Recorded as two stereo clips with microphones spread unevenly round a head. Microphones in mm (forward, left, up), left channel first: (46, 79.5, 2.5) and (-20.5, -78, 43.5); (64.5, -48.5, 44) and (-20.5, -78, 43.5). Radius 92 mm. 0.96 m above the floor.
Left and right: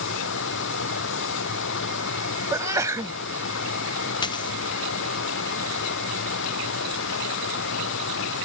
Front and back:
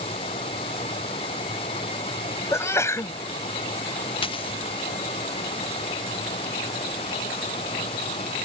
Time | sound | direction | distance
0.0 | running water | 65° left | ?
2.5 | a sneeze | 40° right | ?
4.2 | a dropped coin | straight ahead | ?